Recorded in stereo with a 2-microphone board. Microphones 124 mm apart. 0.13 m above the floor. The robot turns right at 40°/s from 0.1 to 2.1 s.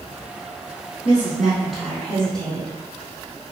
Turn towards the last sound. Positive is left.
turn(degrees=5)  # may be behind; listen again after turning